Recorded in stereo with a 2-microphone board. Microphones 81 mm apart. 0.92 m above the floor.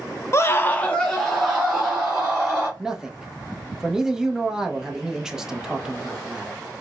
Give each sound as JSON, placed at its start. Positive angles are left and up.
{"t": 0.3, "sound": "a scream", "side_deg": 35, "distance_m": 0.5}
{"t": 2.8, "sound": "a man speaking", "side_deg": -5, "distance_m": 0.6}